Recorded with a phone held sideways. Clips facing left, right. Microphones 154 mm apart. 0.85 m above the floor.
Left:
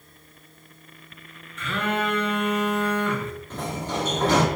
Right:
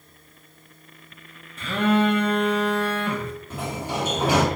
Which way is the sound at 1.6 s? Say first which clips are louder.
Right 6 dB; 35° right (ahead or behind).